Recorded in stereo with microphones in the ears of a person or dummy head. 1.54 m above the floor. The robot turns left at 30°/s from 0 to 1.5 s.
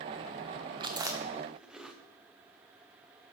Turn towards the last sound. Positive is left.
turn(degrees=-5)  # may be behind; listen again after turning